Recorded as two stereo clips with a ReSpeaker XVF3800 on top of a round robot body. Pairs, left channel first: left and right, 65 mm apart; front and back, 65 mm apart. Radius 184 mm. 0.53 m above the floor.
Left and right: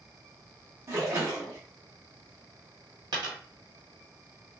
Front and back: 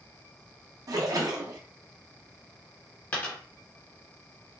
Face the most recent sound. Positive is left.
turn(degrees=-70)